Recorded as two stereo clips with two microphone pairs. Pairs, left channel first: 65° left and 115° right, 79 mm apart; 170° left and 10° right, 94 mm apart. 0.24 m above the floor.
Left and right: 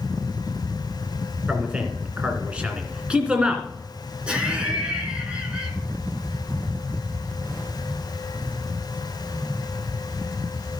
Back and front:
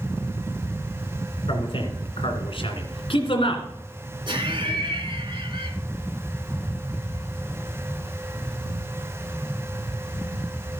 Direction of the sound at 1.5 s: 170° left.